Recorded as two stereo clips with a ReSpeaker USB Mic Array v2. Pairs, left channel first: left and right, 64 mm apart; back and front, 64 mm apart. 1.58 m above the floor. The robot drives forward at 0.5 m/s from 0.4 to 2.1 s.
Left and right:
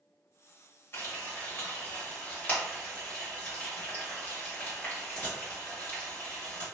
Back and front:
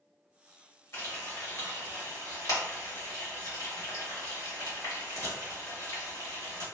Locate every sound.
0.9 s frying: 135° left, 1.5 m; by 6.7 s 150° left, 1.9 m